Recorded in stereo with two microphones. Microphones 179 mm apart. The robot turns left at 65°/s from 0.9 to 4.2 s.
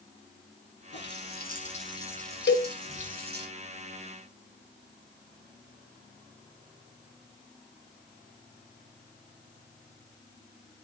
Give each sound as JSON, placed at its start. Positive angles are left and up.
{"t": 0.9, "sound": "a running tap", "azimuth_deg": 90, "distance_m": 5.0}
{"t": 2.5, "sound": "a cowbell", "side_deg": 70, "distance_m": 0.9}